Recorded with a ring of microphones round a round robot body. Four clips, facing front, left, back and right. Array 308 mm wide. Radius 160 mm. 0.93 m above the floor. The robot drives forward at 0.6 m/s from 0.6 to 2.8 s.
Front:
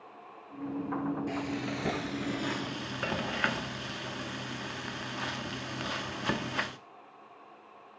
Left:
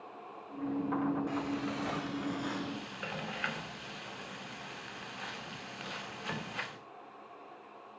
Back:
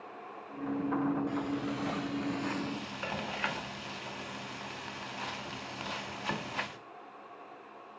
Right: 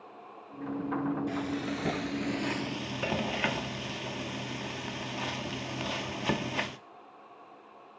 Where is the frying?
35° right, 2.0 m; by 6.8 s 60° right, 1.4 m.